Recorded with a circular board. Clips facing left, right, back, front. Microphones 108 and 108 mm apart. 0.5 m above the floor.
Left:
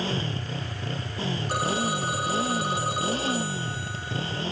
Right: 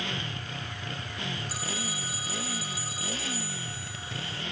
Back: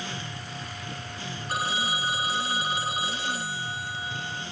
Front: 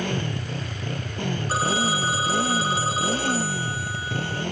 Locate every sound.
0.0 s a motorcycle: 30° left
1.5 s a phone ringing: 60° left